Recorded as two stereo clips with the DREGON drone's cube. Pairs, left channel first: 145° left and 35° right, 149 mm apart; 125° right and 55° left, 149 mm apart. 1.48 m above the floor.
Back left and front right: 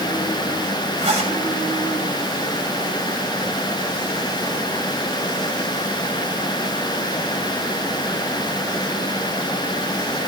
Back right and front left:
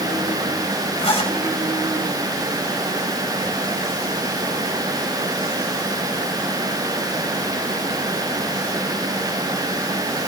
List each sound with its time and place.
1.0 s a zipper: 75° right, 3.5 m